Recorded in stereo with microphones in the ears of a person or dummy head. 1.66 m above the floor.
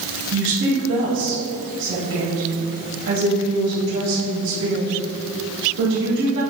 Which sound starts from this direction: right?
A woman speaking, at 0.3 s.